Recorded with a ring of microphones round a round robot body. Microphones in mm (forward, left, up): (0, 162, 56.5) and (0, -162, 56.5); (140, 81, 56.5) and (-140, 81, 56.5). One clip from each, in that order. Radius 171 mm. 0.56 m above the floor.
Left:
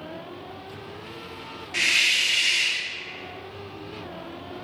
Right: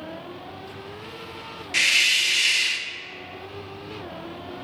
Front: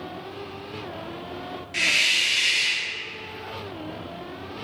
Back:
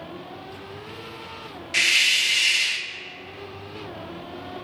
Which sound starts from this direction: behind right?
A hiss, at 1.7 s.